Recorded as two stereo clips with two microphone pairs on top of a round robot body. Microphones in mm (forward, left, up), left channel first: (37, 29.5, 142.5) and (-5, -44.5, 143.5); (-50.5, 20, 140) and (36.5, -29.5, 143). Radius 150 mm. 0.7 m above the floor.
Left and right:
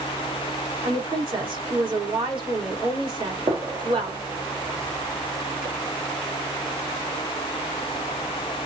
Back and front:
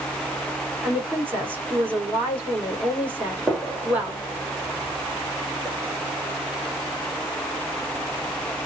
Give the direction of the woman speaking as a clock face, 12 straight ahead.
3 o'clock.